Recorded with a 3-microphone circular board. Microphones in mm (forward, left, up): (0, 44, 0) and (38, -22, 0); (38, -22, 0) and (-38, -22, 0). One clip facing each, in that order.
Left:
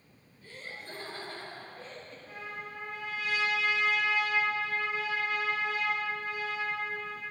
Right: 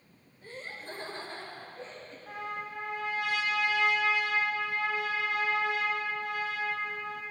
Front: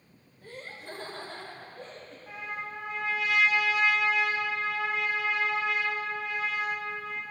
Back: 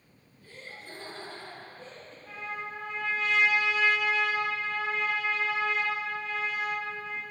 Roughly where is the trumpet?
Right.